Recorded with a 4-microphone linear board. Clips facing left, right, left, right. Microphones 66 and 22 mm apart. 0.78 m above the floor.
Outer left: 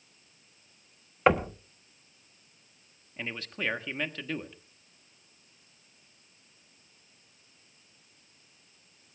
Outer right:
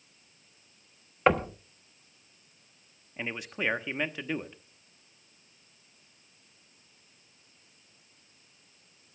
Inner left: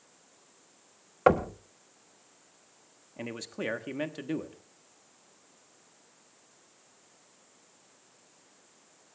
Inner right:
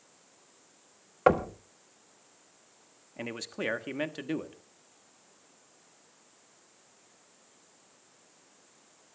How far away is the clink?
No clink in this recording.